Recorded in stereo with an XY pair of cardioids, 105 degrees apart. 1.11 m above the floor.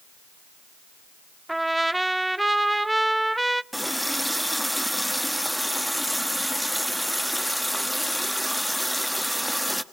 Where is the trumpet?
10° right, 0.6 m.